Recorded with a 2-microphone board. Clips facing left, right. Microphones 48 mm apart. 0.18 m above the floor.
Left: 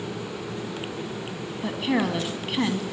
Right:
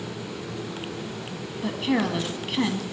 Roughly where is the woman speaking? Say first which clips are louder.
Even; centre.